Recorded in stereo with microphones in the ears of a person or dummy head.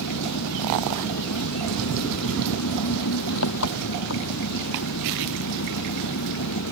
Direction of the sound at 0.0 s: 70° left (ahead or behind).